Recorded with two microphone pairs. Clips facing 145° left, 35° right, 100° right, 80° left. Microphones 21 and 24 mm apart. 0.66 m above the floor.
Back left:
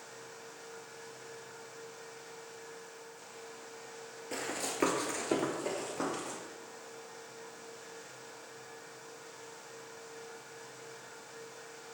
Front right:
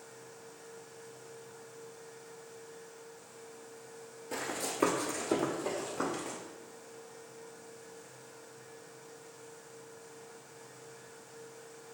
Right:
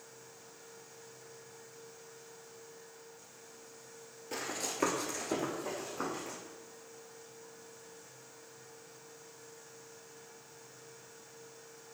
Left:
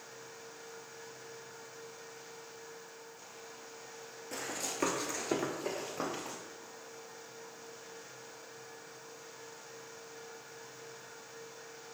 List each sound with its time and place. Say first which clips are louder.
4.3 s running footsteps: front right 1 dB, right 1 dB; 160° right, 0.8 m; by 6.4 s 65° left, 1.0 m